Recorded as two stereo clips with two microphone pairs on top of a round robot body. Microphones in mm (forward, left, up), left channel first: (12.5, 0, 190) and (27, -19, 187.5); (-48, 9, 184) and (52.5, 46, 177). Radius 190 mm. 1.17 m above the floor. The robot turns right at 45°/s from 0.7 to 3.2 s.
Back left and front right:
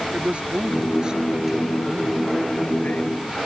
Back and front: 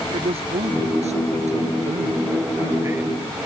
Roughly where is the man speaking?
Ahead.